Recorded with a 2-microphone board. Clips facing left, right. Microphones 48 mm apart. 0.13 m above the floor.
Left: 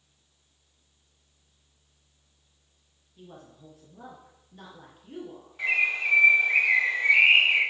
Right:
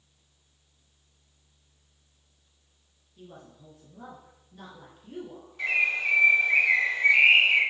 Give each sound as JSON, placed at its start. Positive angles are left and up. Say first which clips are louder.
{"t": 3.2, "sound": "a woman speaking", "louder": "even", "side_deg": 15, "distance_m": 2.5}
{"t": 5.6, "sound": "a bird", "louder": "even", "side_deg": 15, "distance_m": 1.8}